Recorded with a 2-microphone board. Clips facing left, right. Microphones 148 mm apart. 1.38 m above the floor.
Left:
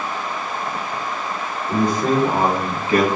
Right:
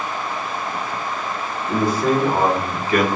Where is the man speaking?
15° right (ahead or behind), 1.0 m; by 3.1 s 40° left (ahead or behind), 0.7 m.